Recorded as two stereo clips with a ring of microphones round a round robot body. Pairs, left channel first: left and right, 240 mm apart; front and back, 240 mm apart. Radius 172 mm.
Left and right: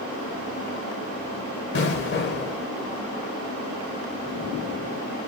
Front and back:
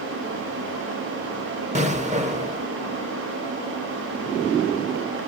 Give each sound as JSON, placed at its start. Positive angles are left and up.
{"t": 1.8, "sound": "an explosion", "azimuth_deg": 125, "distance_m": 0.8}